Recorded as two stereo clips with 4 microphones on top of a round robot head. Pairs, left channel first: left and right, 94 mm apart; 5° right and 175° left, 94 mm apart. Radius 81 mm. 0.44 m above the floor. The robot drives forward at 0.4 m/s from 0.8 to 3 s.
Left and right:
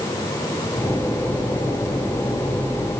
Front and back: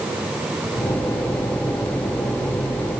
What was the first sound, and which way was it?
Only background noise.